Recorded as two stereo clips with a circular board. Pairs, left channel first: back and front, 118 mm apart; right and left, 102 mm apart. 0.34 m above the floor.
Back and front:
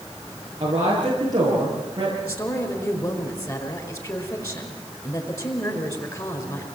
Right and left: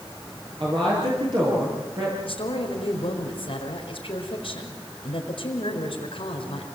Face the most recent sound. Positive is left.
turn(degrees=-125)